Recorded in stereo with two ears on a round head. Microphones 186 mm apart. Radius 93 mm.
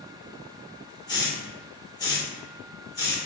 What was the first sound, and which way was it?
A hiss, 20° left (ahead or behind).